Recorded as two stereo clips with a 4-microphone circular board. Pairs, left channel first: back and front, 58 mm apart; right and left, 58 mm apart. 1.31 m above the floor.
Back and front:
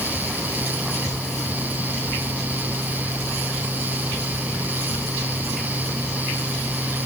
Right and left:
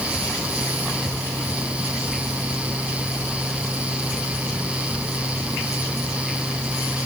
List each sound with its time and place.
Only background noise.